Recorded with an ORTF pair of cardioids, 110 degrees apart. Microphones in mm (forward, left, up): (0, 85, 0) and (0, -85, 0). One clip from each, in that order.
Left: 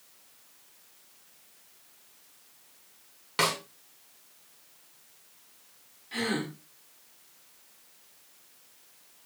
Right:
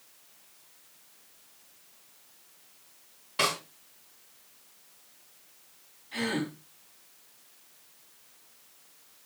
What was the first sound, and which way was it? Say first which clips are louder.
A snare drum: left 1 dB; 65° left.